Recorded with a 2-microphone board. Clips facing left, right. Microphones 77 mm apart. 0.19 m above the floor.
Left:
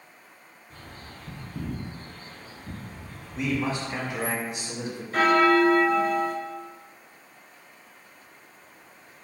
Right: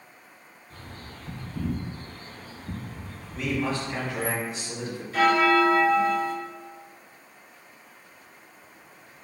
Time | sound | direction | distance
0.7 | a bird | 20° left (ahead or behind) | 1.6 m
3.4 | a man speaking | 20° left (ahead or behind) | 1.1 m
5.1 | a bell | 50° left (ahead or behind) | 0.7 m